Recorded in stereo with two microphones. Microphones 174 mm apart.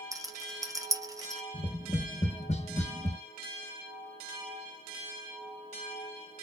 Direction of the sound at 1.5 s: 40° left (ahead or behind).